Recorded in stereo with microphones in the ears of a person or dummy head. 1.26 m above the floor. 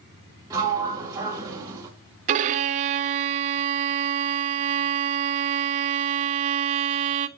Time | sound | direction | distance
0.5 | a sliding door | 15° right (ahead or behind) | 1.0 m
2.3 | a violin | 40° right (ahead or behind) | 0.5 m